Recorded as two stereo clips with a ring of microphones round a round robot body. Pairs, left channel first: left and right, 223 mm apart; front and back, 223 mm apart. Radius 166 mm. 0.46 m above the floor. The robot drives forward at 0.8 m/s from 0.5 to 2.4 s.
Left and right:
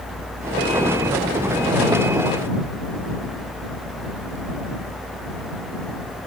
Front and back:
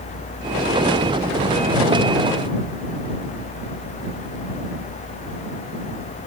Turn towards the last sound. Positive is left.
No sound to turn to.